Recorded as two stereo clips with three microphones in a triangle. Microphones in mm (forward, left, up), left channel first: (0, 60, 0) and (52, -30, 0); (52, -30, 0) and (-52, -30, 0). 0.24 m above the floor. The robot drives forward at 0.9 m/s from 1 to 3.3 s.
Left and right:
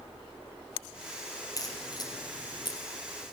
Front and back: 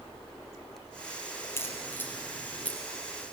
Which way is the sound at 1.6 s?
65° left.